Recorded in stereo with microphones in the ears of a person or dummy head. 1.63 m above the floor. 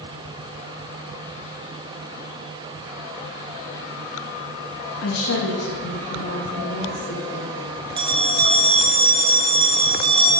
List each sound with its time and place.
5.0 s a woman speaking: 75° left (ahead or behind), 2 m; by 7.5 s 50° left (ahead or behind), 4.5 m
8.0 s a bell: 30° right (ahead or behind), 1.3 m